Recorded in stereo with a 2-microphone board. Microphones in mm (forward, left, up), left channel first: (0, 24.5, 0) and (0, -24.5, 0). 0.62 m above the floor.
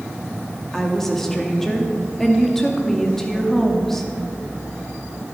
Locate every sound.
0.7 s a woman speaking: 5° left (ahead or behind), 1.1 m